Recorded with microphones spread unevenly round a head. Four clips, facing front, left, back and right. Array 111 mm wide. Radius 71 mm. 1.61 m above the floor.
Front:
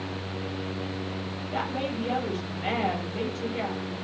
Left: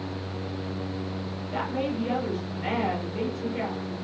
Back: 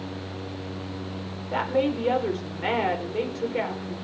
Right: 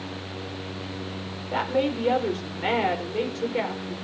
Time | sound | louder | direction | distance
1.5 | a woman speaking | right 5 dB, back 7 dB | 110° right | 5.5 m